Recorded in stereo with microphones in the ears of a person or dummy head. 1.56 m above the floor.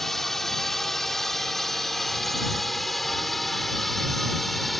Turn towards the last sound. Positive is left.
turn(degrees=0)  # may be behind; listen again after turning